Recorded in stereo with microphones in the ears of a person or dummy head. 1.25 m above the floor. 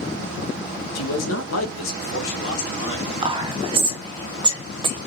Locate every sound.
0.9 s a man speaking: 70° left (ahead or behind), 0.9 m; by 3.1 s 75° left (ahead or behind), 1.7 m
3.2 s whispering: 25° right (ahead or behind), 0.7 m